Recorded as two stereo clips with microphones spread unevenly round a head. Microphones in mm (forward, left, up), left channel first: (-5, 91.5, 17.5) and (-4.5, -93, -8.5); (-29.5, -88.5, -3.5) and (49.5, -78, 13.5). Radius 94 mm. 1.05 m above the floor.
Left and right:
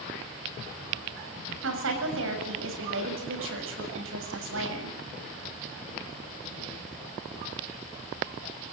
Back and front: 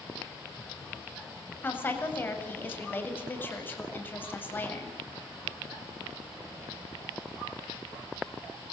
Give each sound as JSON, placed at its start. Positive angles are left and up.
{"t": 1.6, "sound": "a woman speaking", "azimuth_deg": -110, "distance_m": 7.0}